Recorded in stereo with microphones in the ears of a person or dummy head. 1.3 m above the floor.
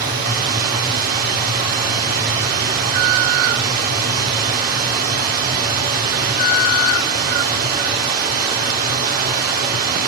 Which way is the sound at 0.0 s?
45° right (ahead or behind).